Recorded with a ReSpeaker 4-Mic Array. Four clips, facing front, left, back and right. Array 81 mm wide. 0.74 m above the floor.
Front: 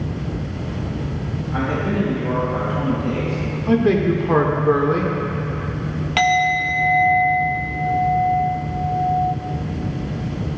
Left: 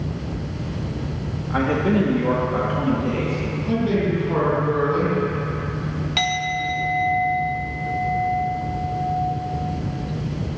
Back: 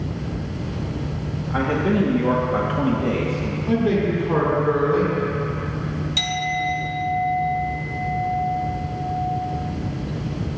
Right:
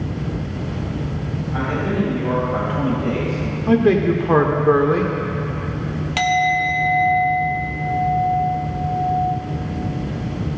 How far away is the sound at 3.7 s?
About 1.6 m.